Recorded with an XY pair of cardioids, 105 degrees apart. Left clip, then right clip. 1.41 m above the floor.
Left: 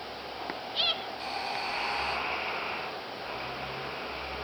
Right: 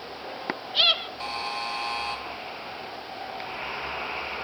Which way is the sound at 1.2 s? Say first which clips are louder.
Right 2 dB; 40° right.